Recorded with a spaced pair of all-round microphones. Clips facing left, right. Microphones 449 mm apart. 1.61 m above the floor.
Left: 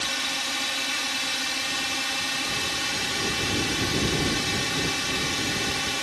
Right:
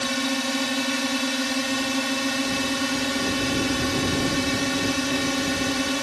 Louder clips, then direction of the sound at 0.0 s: Right 12 dB; 70° right (ahead or behind).